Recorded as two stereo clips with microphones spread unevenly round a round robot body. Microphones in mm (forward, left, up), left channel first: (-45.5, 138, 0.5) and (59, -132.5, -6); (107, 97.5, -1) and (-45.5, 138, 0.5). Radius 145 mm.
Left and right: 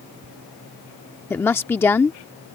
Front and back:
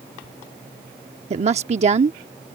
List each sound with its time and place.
1.3 s a woman speaking: 170° right